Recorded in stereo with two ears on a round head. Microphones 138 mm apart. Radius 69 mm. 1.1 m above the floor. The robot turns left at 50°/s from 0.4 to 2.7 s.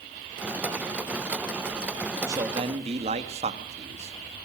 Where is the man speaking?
15° right (ahead or behind), 1.8 m; by 4.5 s 40° right (ahead or behind), 1.8 m.